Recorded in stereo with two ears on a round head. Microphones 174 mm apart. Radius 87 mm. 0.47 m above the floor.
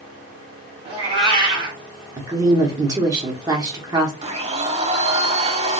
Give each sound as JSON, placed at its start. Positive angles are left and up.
{"t": 0.8, "sound": "a cat meowing", "side_deg": -30, "distance_m": 1.4}
{"t": 2.2, "sound": "a woman speaking", "side_deg": -20, "distance_m": 0.9}
{"t": 4.2, "sound": "a blender", "side_deg": -35, "distance_m": 0.8}